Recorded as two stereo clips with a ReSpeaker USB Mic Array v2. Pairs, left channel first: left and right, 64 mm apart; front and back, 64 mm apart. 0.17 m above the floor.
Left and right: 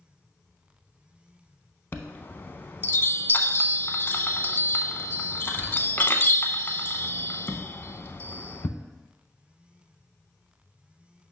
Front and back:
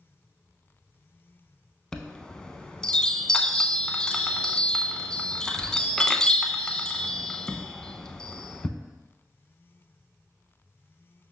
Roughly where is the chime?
Left.